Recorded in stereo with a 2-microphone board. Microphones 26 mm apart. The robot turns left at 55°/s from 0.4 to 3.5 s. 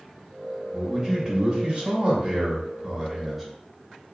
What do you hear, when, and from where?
0.7 s a man speaking: 25° right, 1.0 m; by 3.5 s 175° right, 1.0 m